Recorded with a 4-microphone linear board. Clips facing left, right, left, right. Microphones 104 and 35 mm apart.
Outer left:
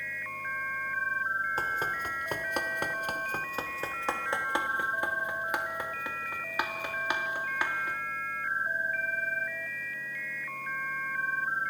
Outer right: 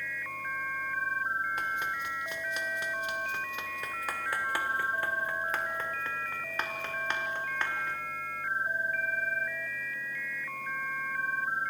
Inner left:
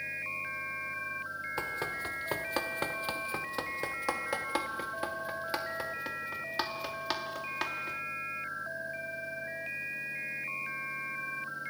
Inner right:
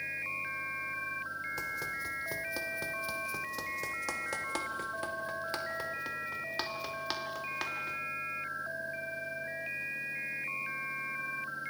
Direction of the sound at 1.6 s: 30° left (ahead or behind).